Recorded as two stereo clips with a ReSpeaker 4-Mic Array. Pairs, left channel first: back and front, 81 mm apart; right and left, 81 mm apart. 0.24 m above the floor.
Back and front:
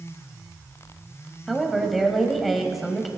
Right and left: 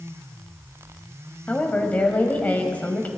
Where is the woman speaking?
85° right, 1.3 m.